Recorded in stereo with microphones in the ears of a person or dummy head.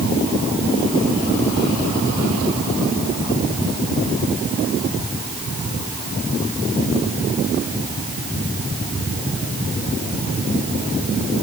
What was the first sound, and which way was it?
Only background noise.